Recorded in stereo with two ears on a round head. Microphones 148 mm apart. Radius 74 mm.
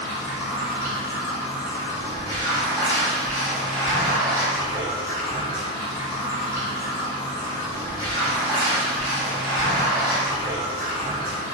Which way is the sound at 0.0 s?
20° right (ahead or behind).